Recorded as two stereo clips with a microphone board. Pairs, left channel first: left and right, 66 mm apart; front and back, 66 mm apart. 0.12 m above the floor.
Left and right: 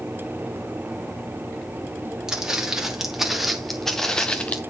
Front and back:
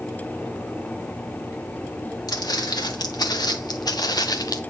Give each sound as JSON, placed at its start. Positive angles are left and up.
{"t": 2.3, "sound": "footsteps", "azimuth_deg": -10, "distance_m": 1.9}